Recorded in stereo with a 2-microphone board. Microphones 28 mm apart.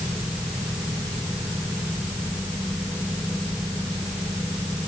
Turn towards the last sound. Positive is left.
No sound to turn to.